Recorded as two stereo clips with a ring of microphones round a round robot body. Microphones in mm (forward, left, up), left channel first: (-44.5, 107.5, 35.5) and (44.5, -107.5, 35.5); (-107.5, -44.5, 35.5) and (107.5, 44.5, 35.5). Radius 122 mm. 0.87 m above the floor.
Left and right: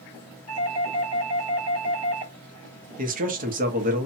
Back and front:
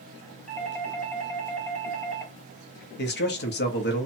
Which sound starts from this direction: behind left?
A doorbell, at 0.5 s.